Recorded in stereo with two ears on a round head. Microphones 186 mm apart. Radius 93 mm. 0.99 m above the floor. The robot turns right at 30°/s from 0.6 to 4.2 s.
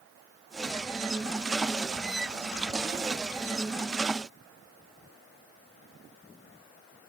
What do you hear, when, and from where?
Only background noise.